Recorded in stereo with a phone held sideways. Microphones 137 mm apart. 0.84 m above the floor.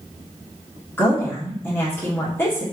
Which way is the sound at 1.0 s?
20° left (ahead or behind).